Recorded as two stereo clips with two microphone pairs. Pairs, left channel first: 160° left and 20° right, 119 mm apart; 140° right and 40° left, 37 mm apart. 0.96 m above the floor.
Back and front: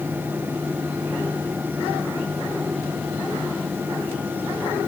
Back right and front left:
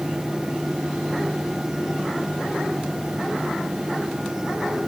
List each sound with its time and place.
Only background noise.